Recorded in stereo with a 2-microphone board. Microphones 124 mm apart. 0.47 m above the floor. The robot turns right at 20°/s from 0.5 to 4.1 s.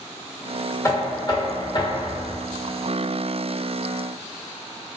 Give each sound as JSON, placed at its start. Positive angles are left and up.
{"t": 0.8, "sound": "knocking", "azimuth_deg": 35, "distance_m": 1.2}